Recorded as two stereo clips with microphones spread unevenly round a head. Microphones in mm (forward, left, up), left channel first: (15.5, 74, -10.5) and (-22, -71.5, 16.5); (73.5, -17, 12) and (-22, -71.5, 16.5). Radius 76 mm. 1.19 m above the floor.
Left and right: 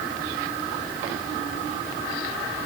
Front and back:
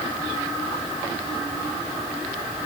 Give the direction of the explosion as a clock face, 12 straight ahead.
No explosion in this recording.